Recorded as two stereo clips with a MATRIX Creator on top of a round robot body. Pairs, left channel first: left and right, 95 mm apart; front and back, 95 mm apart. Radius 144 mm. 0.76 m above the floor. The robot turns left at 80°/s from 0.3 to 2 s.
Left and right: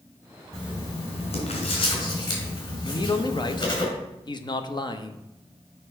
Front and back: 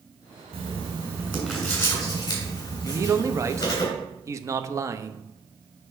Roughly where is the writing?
Behind.